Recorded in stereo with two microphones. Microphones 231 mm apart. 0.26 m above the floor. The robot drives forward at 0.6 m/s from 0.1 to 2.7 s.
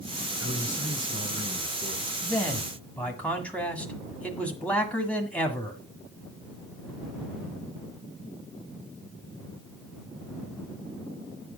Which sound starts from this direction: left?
A man speaking, at 0.4 s.